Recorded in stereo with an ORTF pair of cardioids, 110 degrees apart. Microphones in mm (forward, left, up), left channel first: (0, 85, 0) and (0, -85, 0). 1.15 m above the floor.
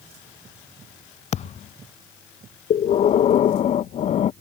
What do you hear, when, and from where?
1.3 s a thud: 45° left
2.7 s breathing: 45° left